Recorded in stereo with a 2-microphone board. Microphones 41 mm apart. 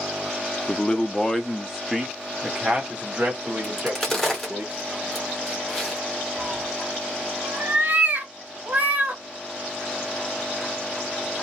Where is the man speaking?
30° left (ahead or behind), 0.7 m; by 4.6 s 30° right (ahead or behind), 2.5 m.